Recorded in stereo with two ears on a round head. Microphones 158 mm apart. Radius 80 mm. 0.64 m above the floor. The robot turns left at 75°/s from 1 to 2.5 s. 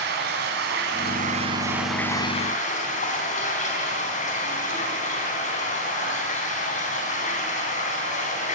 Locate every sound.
0.0 s running water: 110° right, 4 m; by 8.6 s 135° left, 4 m